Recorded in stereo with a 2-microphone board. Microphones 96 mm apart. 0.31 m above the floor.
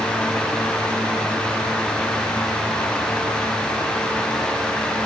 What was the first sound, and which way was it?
Only background noise.